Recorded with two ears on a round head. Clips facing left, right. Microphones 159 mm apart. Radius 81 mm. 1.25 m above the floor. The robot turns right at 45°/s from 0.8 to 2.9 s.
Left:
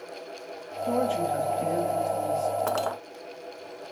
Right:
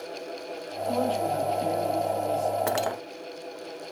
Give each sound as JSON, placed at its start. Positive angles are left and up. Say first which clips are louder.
{"t": 0.9, "sound": "a woman speaking", "louder": "left 1 dB", "azimuth_deg": 105, "distance_m": 7.0}
{"t": 2.7, "sound": "cutlery clinking", "louder": "right 1 dB", "side_deg": -15, "distance_m": 0.6}